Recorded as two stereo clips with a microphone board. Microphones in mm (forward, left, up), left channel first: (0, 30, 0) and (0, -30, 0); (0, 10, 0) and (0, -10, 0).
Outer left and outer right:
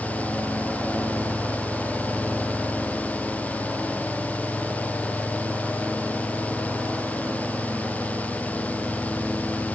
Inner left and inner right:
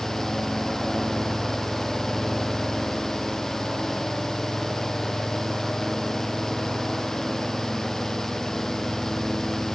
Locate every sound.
Only background noise.